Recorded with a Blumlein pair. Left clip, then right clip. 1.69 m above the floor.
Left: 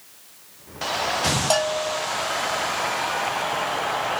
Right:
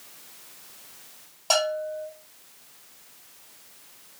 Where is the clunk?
No clunk in this recording.